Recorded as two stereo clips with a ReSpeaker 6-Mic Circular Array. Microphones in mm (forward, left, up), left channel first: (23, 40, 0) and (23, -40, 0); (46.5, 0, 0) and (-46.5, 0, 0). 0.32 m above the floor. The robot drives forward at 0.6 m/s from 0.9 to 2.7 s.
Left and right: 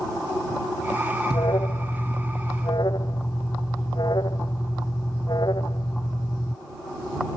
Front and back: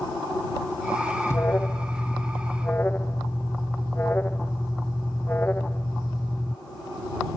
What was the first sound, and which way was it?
An alarm, 60° left.